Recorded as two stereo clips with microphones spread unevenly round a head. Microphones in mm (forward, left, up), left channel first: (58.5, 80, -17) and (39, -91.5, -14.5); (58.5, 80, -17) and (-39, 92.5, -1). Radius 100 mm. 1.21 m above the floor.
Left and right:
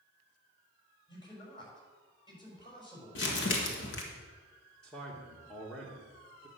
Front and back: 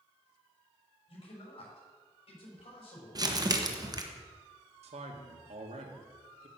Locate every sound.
1.1 s a man speaking: 20° left, 6 m
3.1 s crumpling: 120° left, 1.5 m
4.8 s a man speaking: 170° left, 1.6 m